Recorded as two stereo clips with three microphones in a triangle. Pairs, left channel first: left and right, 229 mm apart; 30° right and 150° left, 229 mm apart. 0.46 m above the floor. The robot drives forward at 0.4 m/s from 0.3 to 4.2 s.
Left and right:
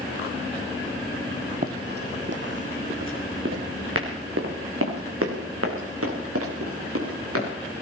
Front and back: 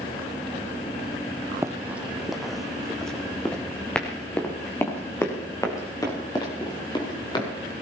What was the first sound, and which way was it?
Running footsteps, 135° right.